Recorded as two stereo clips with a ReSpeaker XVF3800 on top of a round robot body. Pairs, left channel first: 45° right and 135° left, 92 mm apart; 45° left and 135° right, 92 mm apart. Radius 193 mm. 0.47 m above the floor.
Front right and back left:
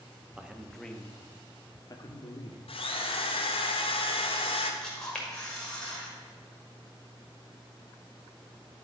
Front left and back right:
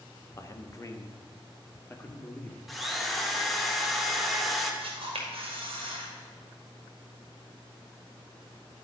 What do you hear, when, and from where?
0.3 s a man speaking: 60° left, 1.1 m; by 2.6 s 25° right, 1.5 m
2.7 s a drill: 45° right, 1.0 m
4.8 s a camera shutter: 125° right, 1.9 m